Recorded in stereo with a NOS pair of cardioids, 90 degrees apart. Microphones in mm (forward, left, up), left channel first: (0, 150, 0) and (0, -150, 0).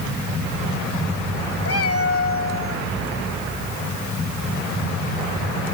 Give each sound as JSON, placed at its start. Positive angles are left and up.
{"t": 1.6, "sound": "a cat meowing", "azimuth_deg": 50}